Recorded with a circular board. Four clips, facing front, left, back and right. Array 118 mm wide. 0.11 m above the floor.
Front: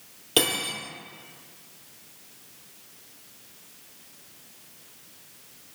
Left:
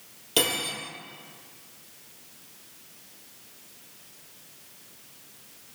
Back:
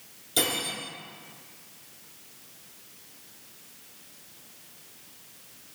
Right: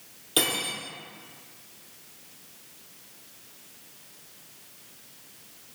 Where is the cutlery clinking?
20° left, 1.8 m.